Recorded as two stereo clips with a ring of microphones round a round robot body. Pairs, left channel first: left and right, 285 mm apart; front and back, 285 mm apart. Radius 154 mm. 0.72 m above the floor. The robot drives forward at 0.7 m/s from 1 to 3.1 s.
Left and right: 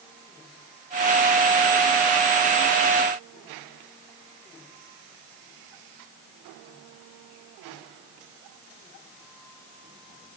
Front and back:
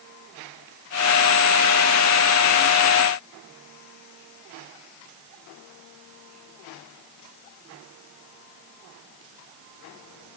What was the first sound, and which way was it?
Only background noise.